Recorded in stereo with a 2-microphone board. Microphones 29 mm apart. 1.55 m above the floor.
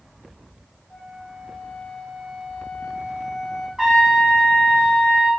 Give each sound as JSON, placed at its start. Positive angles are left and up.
{"t": 0.9, "sound": "a flute", "side_deg": 40, "distance_m": 0.9}
{"t": 3.8, "sound": "a trumpet", "side_deg": -20, "distance_m": 1.0}